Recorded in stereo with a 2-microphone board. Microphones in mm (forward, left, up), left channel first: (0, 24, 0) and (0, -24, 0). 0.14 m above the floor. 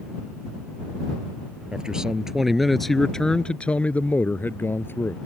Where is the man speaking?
15° right (ahead or behind); by 5.2 s 60° left (ahead or behind).